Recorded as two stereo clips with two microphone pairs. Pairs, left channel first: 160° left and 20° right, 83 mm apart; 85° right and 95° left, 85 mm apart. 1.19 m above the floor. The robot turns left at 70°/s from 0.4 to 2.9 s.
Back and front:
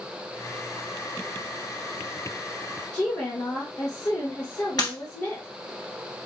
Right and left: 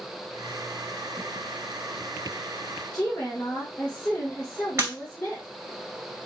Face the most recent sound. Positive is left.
turn(degrees=145)